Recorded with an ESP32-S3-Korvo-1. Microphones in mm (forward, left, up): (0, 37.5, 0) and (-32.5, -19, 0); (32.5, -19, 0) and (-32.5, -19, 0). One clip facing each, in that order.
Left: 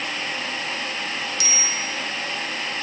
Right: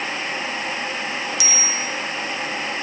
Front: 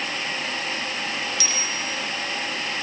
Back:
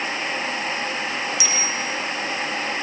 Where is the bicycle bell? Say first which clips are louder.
Right 2 dB, back 3 dB; 110° left, 9 m.